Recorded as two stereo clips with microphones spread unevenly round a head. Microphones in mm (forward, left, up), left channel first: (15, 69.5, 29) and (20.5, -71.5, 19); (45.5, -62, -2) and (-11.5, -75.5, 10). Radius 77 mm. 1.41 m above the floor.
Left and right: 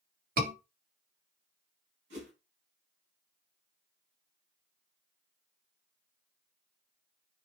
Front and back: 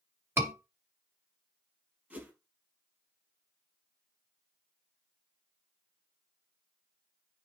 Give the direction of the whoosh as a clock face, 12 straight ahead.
4 o'clock.